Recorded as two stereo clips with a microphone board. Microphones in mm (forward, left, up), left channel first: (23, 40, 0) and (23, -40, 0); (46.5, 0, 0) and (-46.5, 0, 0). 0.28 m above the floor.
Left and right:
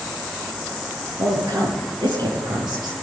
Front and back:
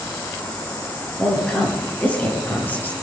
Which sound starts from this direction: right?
A woman speaking, at 1.2 s.